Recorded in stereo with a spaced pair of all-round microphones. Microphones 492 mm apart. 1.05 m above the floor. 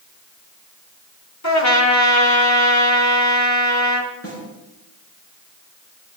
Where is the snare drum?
30° left (ahead or behind), 9 m.